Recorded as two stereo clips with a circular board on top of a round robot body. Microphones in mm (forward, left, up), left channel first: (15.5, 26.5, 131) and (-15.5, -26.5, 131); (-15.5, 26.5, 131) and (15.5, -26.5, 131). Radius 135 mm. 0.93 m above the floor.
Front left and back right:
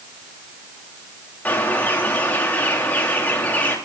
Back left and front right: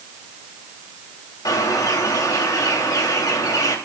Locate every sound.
1.4 s a bird: 125° left, 4 m